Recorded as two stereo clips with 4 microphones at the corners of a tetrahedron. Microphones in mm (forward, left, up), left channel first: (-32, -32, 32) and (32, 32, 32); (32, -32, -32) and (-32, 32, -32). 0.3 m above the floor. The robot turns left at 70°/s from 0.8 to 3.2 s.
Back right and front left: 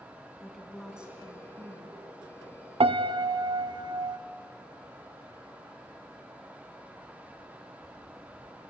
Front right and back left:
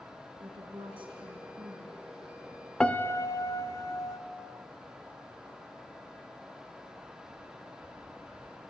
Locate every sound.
0.4 s a woman speaking: 140° left, 3 m; by 2.0 s 55° left, 3 m
2.8 s a piano: 35° left, 0.6 m; by 4.2 s 10° left, 0.6 m